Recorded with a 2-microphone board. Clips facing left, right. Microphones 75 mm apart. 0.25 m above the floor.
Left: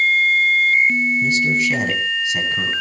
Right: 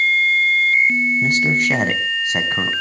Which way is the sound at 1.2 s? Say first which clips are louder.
Right 1 dB; 55° right (ahead or behind).